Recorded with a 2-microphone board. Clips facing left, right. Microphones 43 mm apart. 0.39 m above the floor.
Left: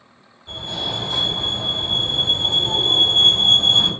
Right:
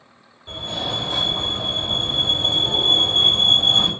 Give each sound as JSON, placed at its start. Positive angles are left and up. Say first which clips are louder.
{"t": 0.5, "sound": "a fire alarm", "louder": "even", "side_deg": -15, "distance_m": 1.7}